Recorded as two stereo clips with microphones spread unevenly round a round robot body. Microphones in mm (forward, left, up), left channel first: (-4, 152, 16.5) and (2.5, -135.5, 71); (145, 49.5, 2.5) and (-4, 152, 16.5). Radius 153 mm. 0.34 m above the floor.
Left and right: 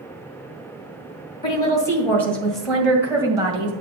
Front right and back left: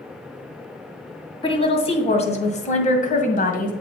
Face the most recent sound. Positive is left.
turn(degrees=-10)